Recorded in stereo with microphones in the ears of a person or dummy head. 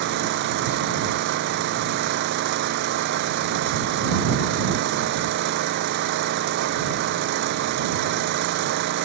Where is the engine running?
55° right (ahead or behind).